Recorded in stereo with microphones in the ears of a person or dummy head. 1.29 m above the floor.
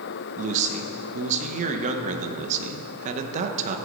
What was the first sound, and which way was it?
A man speaking, 45° right (ahead or behind).